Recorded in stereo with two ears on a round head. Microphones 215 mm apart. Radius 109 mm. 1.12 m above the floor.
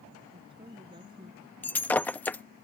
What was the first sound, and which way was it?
A woman speaking, 20° right (ahead or behind).